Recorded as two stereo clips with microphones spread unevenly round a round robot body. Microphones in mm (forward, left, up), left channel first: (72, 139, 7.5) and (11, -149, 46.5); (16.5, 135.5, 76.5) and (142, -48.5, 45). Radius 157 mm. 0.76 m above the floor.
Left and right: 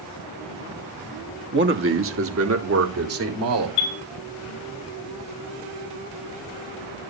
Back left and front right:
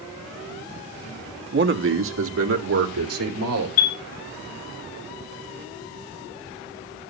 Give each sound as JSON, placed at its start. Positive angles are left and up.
{"t": 1.5, "sound": "a man speaking", "azimuth_deg": -50, "distance_m": 1.7}
{"t": 3.8, "sound": "a chime", "azimuth_deg": 105, "distance_m": 1.8}